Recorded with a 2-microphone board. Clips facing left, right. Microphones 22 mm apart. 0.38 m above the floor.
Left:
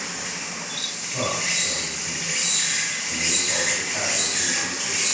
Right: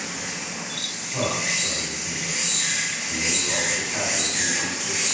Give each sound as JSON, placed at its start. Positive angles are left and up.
{"t": 0.0, "sound": "an insect", "side_deg": 50, "distance_m": 1.3}
{"t": 1.1, "sound": "a man speaking", "side_deg": -10, "distance_m": 1.8}